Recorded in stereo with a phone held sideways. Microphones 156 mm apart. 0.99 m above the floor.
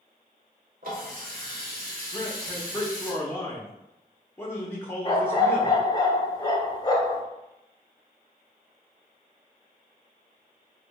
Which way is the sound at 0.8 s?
65° right (ahead or behind).